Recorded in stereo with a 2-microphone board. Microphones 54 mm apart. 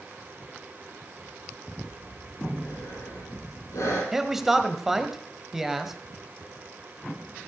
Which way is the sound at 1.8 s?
75° left (ahead or behind).